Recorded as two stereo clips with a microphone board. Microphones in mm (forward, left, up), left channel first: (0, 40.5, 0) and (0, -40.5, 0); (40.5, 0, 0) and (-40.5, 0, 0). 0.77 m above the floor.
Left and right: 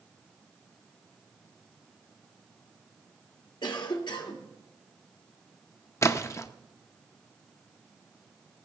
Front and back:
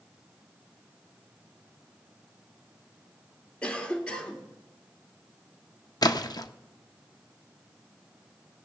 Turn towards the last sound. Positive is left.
turn(degrees=35)